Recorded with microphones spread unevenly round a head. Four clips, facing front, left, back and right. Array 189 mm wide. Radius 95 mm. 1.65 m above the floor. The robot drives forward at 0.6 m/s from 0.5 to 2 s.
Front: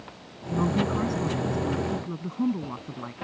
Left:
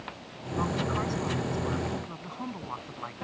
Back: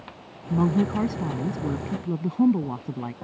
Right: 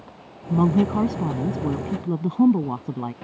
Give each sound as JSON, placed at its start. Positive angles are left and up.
{"t": 0.5, "sound": "a woman speaking", "azimuth_deg": -105}